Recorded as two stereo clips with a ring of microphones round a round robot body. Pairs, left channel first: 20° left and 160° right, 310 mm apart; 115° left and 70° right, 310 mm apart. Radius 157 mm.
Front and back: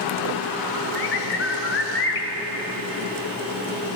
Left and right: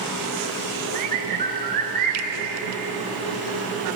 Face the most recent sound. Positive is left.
turn(degrees=-15)